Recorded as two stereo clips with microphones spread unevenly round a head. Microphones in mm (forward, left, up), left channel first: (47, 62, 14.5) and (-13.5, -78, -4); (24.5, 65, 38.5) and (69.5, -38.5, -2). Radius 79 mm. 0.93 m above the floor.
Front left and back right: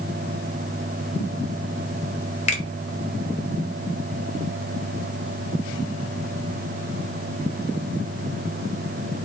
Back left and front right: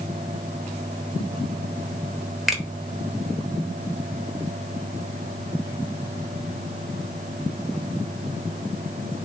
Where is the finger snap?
15° left, 1.0 m.